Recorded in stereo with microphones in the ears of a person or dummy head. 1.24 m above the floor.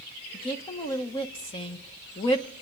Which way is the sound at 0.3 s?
25° left (ahead or behind).